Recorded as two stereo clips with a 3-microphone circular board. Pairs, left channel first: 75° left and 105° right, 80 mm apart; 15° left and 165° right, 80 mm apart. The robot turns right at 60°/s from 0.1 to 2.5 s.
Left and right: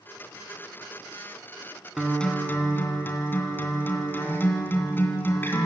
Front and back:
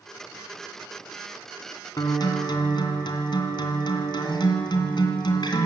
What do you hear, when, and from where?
2.0 s a guitar: 20° right, 2.5 m; by 5.7 s 15° left, 2.5 m